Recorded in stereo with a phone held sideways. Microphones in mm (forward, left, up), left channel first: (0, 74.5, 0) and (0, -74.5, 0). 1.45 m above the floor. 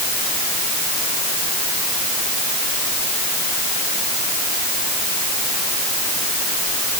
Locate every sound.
Only background noise.